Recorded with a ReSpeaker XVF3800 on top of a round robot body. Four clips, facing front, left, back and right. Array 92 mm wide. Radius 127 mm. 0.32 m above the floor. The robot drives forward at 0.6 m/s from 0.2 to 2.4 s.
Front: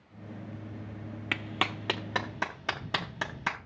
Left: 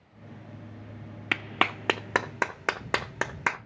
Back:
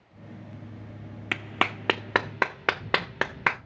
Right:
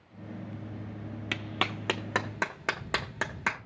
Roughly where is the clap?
Left.